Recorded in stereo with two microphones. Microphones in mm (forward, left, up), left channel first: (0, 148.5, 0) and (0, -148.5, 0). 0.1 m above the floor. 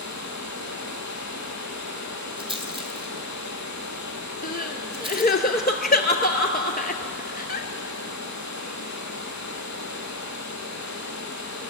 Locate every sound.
0.0 s running water: 70° left (ahead or behind), 1.2 m
2.4 s a rattle: 20° right (ahead or behind), 1.1 m
4.4 s crying: 30° left (ahead or behind), 0.6 m